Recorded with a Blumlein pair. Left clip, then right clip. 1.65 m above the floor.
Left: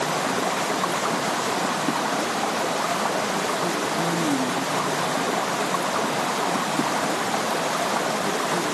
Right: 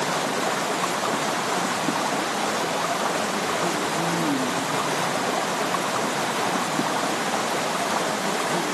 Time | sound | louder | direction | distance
0.0 | running water | even | 5° left | ?